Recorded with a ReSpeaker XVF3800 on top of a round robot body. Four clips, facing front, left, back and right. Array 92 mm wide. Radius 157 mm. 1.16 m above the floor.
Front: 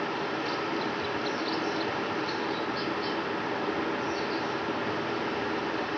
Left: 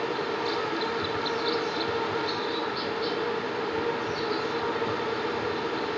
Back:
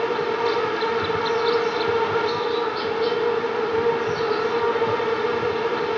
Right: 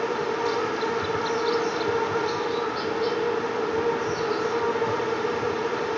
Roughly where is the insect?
Behind.